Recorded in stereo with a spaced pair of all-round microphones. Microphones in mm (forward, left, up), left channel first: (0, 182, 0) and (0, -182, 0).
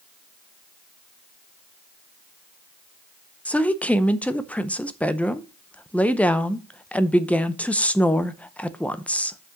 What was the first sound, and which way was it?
A woman speaking, 5° left (ahead or behind).